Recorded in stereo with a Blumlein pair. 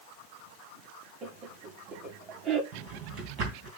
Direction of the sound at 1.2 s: 35° right.